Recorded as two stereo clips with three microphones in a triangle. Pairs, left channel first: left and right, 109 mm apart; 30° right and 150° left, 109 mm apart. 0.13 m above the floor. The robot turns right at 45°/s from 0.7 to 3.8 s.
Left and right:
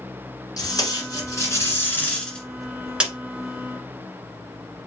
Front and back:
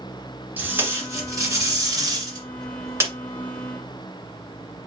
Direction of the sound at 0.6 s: 90° left.